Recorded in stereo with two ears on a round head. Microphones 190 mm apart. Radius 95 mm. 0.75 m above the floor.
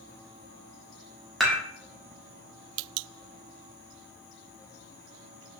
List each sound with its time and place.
1.4 s dishes clattering: centre (ahead or behind), 1.1 m